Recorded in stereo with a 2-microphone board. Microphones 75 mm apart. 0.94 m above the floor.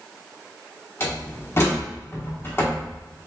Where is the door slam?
35° left (ahead or behind), 1.2 m.